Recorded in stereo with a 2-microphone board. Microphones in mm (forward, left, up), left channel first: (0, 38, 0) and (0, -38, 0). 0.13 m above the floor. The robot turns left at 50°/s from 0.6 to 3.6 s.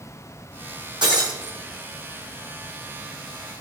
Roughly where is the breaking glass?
Right.